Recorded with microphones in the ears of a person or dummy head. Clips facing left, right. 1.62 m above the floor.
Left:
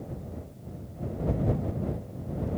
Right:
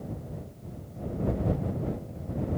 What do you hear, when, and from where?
Only background noise.